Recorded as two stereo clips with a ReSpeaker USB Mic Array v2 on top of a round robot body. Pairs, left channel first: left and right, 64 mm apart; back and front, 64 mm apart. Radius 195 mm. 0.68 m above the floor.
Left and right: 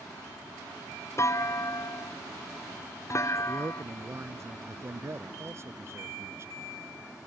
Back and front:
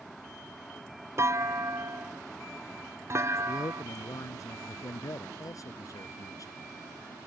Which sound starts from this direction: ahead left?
A clunk, at 1.2 s.